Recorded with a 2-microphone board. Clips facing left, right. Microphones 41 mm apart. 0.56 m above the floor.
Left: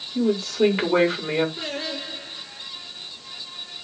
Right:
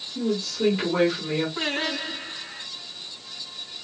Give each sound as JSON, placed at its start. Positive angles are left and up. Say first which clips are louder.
{"t": 0.1, "sound": "a woman speaking", "louder": "left 5 dB", "side_deg": 45, "distance_m": 2.5}
{"t": 1.6, "sound": "singing", "louder": "right 3 dB", "side_deg": -50, "distance_m": 2.5}